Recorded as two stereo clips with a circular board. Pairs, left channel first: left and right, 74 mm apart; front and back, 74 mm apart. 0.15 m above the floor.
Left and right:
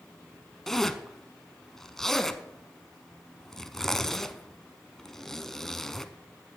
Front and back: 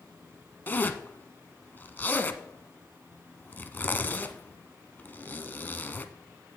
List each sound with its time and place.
0.7 s a zipper: 10° left, 0.8 m